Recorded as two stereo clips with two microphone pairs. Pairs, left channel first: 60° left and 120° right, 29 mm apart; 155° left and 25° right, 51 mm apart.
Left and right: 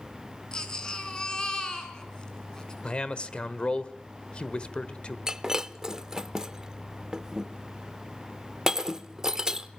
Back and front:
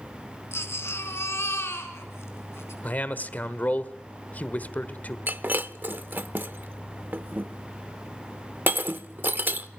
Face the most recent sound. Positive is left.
turn(degrees=-60)